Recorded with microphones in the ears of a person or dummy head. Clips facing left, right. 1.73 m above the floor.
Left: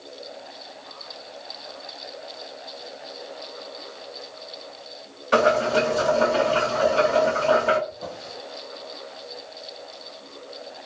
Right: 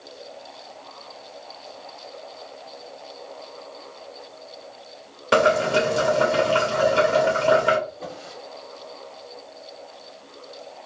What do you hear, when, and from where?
5.3 s boiling: 85° right, 1.2 m
7.9 s a drawer: 50° right (ahead or behind), 2 m